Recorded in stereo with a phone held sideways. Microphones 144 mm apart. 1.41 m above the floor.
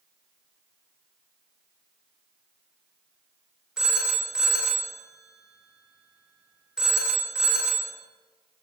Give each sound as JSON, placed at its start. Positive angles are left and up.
{"t": 3.8, "sound": "a phone ringing", "side_deg": -5, "distance_m": 1.2}